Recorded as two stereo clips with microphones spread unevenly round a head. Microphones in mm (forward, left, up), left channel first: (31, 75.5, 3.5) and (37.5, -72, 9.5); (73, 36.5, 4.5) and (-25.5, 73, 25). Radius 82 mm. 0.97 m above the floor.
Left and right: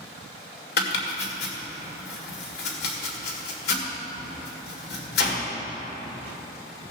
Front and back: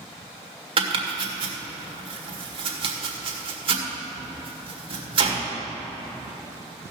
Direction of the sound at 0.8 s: 125° left.